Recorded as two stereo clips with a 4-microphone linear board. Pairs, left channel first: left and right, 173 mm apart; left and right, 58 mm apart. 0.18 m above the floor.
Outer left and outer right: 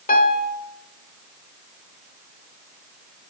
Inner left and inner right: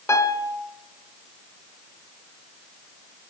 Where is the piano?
60° left (ahead or behind), 0.7 m.